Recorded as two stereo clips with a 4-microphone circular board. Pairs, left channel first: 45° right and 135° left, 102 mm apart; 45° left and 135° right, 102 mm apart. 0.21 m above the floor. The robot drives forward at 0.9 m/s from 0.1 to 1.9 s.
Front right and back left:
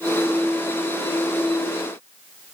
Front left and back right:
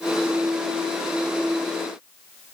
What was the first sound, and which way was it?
Only background noise.